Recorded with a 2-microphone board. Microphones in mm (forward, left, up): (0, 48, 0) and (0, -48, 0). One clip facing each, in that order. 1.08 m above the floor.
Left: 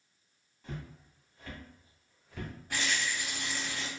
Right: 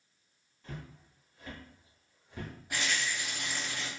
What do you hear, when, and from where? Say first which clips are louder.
0.6 s footsteps: left 2 dB; centre (ahead or behind), 1.5 m; by 2.5 s 30° right (ahead or behind), 1.1 m
2.7 s a rattle: even; 15° right (ahead or behind), 1.5 m